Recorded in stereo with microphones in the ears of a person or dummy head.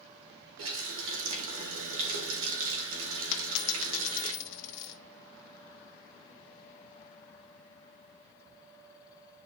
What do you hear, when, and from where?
0.6 s a running tap: 75° right (ahead or behind), 2.5 m
3.3 s a dropped coin: 60° left (ahead or behind), 0.9 m